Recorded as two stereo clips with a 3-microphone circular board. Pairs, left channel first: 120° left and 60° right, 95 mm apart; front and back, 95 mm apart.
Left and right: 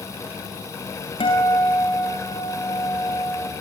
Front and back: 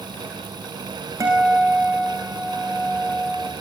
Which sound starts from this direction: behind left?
A guitar, at 1.2 s.